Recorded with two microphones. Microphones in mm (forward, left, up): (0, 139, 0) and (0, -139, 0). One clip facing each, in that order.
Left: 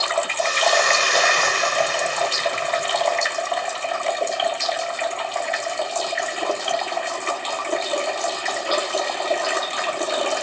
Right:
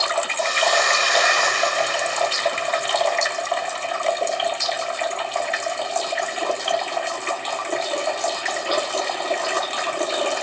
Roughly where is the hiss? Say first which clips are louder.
Left 1 dB; left.